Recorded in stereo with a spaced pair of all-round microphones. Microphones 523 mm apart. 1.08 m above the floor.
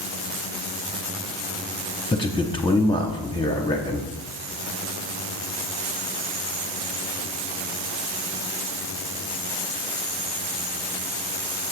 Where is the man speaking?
10° left (ahead or behind), 0.8 m.